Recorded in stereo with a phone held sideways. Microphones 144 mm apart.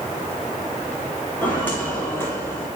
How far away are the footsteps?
About 5 m.